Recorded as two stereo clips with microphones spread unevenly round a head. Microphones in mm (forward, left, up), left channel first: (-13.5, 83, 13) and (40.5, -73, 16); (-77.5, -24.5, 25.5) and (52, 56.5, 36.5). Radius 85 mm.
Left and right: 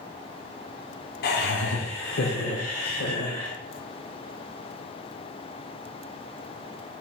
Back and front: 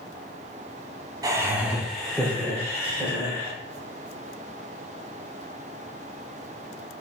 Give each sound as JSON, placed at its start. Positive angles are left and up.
{"t": 1.2, "sound": "laughter", "azimuth_deg": 95, "distance_m": 0.6}